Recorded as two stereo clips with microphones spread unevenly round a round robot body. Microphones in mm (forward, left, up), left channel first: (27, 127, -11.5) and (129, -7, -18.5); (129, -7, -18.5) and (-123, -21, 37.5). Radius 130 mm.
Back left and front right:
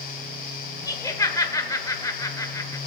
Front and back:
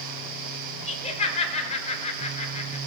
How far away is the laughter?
About 1.9 m.